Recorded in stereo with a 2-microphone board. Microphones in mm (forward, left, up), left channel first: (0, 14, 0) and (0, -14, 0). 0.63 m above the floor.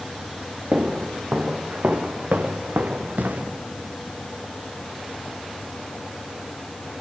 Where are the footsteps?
80° right, 4 m; by 3.5 s 75° right (ahead or behind), 2.5 m.